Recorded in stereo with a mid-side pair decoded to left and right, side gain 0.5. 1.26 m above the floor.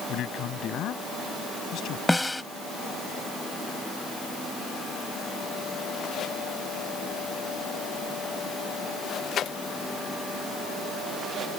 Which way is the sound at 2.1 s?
5° left.